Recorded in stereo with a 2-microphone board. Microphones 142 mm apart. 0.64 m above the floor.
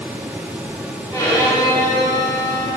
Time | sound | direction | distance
1.1 | a violin | 25° left (ahead or behind) | 1.6 m